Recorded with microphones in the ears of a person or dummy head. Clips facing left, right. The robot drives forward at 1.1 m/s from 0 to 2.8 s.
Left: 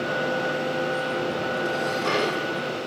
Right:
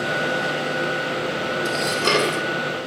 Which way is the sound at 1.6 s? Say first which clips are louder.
Right 2 dB; 60° right (ahead or behind).